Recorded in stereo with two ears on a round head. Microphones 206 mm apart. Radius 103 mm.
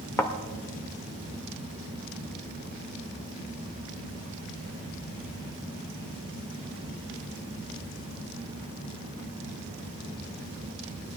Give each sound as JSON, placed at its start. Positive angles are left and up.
{"t": 0.2, "sound": "a thud", "side_deg": 10, "distance_m": 1.1}